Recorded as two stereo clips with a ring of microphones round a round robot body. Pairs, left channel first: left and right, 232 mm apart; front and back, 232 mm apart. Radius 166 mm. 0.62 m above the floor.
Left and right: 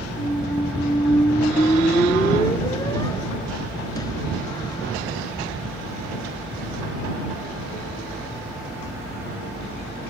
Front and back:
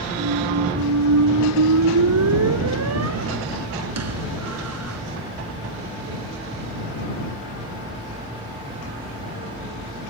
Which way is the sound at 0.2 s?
170° left.